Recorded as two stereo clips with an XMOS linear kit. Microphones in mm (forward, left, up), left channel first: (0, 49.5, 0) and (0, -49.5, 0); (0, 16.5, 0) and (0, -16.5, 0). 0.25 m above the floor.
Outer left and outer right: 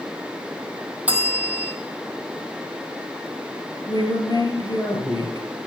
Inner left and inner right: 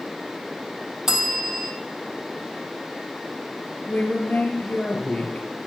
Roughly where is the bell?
Centre.